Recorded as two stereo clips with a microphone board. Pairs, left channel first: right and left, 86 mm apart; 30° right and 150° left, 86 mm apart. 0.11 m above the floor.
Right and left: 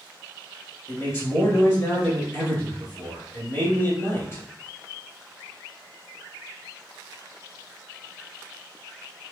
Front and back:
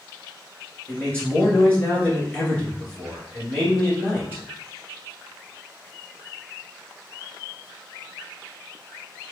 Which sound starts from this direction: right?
A man speaking, at 0.9 s.